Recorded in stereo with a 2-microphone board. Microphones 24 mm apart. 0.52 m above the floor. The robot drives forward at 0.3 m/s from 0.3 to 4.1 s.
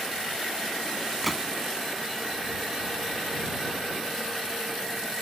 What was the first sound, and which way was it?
A gunshot, centre (ahead or behind).